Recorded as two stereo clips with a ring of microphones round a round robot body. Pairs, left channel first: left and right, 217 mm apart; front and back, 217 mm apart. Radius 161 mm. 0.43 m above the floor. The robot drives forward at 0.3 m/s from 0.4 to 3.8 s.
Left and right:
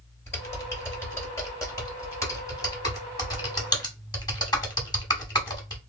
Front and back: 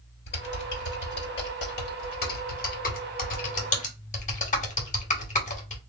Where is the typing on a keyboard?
15° left, 2.5 m; by 5.8 s 30° left, 1.6 m.